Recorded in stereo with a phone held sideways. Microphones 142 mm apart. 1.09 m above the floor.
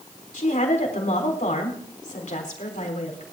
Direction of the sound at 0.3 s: 60° left (ahead or behind).